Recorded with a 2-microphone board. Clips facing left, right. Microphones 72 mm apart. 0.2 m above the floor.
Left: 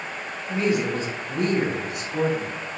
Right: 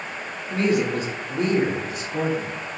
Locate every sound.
0.5 s a woman speaking: 10° left (ahead or behind), 1.8 m; by 2.5 s 65° left (ahead or behind), 2.5 m